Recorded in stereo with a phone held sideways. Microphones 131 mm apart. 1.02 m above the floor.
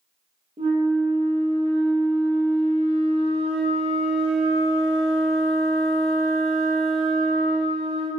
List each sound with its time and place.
0.6 s a flute: 50° right (ahead or behind), 0.5 m